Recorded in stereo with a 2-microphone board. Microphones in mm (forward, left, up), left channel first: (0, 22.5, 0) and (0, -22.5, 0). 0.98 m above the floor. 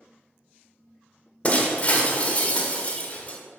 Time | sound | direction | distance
1.4 | breaking glass | 30° left (ahead or behind) | 1.0 m